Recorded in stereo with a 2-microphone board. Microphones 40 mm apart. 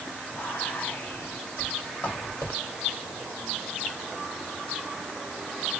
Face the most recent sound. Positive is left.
turn(degrees=60)  # may be behind; listen again after turning